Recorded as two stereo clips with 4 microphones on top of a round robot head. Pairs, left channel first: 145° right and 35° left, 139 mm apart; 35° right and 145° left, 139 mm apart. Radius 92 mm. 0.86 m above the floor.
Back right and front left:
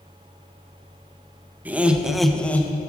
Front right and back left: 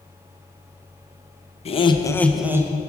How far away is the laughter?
About 1.0 m.